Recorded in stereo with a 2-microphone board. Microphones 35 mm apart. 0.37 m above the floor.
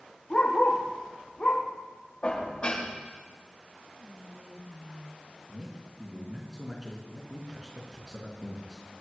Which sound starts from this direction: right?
Whispering, at 4.0 s.